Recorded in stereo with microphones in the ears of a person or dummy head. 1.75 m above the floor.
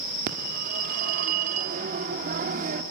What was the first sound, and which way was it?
A phone ringing, 45° right (ahead or behind).